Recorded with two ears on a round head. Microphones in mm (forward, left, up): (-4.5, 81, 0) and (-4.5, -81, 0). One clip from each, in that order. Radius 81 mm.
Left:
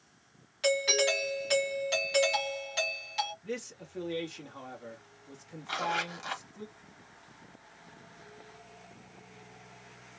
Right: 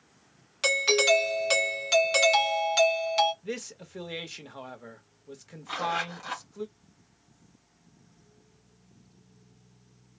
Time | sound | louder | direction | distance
0.6 | a doorbell | right 4 dB | 30° right (ahead or behind) | 1.7 m
3.4 | a man speaking | right 2 dB | 20° right (ahead or behind) | 1.5 m
5.7 | a zipper | right 2 dB | 25° left (ahead or behind) | 1.5 m